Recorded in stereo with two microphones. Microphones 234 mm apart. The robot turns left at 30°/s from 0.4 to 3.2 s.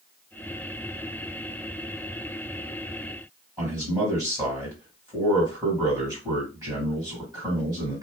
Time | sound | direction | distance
3.6 | a man speaking | 15° right (ahead or behind) | 2 m